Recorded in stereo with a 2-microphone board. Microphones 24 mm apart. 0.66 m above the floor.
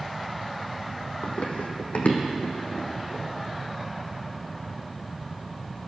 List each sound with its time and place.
1.2 s running footsteps: 65° left (ahead or behind), 1.4 m; by 3.2 s 70° left (ahead or behind), 2.5 m